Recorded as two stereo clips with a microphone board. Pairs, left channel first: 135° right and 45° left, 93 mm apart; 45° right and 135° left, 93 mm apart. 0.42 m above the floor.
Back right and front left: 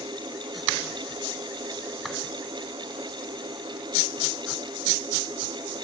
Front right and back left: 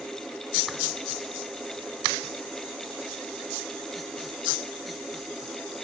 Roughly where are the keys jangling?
No keys jangling in this recording.